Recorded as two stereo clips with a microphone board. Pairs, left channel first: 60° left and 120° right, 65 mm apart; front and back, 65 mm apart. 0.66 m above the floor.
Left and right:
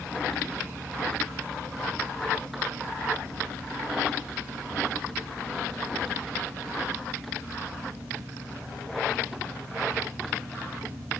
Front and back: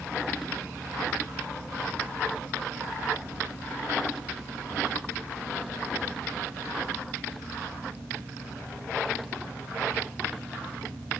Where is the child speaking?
No child speaking in this recording.